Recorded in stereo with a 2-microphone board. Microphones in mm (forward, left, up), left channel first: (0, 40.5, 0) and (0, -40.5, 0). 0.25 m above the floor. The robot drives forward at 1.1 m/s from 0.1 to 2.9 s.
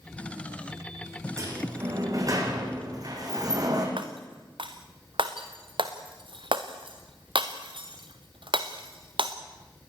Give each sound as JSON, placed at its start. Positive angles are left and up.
{"t": 1.4, "sound": "a sliding door", "side_deg": -40, "distance_m": 7.5}
{"t": 4.0, "sound": "breaking glass", "side_deg": -85, "distance_m": 2.5}